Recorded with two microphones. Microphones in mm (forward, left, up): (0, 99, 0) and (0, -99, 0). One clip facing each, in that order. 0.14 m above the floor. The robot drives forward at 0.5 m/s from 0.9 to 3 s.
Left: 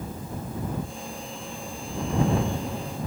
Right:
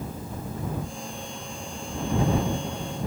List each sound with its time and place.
Only background noise.